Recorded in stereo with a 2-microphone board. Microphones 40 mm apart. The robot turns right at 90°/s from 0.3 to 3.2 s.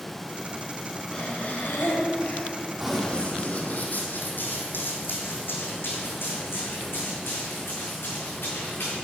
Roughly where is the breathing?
Ahead.